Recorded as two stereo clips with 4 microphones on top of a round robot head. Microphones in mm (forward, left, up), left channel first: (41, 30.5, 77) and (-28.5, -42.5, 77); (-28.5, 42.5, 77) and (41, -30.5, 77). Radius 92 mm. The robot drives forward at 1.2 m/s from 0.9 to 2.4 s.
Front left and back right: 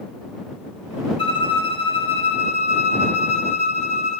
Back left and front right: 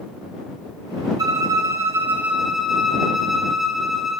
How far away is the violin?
About 1.9 m.